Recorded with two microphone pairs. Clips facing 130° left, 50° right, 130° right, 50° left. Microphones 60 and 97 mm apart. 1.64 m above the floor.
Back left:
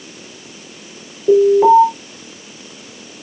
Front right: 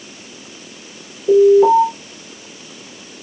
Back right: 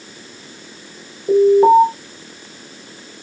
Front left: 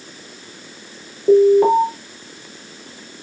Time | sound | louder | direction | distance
1.3 | an alarm | even, back right 1 dB | 75° left | 6.5 m